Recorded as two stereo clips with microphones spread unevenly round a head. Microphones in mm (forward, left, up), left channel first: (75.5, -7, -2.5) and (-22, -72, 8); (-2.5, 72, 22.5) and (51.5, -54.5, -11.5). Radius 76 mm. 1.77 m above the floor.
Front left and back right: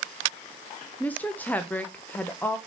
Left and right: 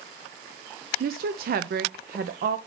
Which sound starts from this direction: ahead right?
A woman speaking, at 1.0 s.